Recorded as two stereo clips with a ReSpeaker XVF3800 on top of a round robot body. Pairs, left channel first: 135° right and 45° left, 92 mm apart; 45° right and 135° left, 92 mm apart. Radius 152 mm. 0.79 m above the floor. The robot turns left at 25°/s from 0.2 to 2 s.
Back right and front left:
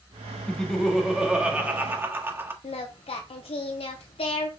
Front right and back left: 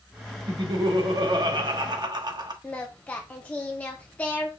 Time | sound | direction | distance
0.5 | laughter | 145° left | 1.3 m
2.6 | singing | 120° right | 0.7 m